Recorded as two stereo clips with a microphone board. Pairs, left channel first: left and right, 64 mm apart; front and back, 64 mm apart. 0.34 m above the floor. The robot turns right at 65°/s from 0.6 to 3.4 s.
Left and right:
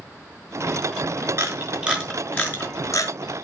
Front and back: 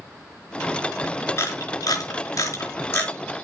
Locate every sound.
1.4 s a camera shutter: 50° right, 4.5 m; by 3.1 s 65° left, 4.5 m